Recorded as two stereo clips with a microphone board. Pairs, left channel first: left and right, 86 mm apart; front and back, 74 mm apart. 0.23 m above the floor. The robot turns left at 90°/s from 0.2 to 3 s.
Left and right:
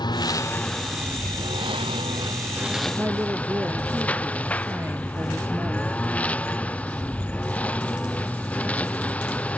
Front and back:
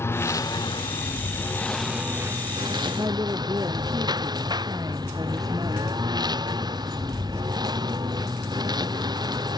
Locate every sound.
0.0 s a lawn mower: 55° left; by 9.6 s 165° left
3.0 s a woman speaking: 150° right